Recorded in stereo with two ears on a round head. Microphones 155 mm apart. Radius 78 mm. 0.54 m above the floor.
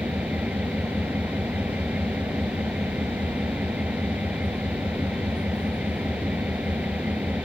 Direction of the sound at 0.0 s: 5° right (ahead or behind).